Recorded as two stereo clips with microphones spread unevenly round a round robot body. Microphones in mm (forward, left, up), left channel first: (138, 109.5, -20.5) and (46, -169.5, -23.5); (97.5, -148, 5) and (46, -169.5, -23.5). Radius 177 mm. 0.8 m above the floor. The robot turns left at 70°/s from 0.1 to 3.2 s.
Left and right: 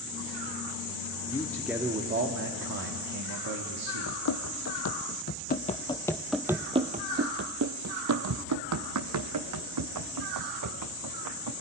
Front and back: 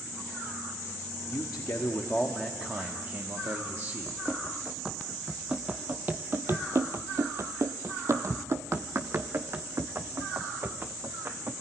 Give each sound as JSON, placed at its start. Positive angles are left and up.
{"t": 1.3, "sound": "a man speaking", "azimuth_deg": 5, "distance_m": 1.7}
{"t": 4.1, "sound": "running footsteps", "azimuth_deg": 85, "distance_m": 1.4}